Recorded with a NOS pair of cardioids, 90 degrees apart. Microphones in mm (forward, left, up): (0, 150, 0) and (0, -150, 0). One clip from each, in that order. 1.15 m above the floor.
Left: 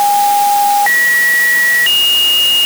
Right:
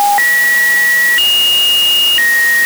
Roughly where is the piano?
No piano in this recording.